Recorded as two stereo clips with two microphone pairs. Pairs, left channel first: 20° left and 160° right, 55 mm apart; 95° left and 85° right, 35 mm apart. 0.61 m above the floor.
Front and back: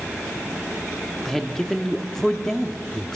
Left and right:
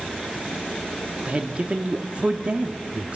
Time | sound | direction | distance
1.2 | a man speaking | 60° right | 1.0 m